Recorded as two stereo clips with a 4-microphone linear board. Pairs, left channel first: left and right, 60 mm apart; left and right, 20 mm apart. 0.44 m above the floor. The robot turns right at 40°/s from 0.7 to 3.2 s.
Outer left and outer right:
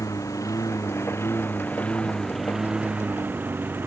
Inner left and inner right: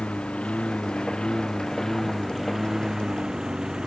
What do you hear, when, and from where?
0.0 s a lawn mower: 75° left (ahead or behind); by 3.9 s 35° right (ahead or behind)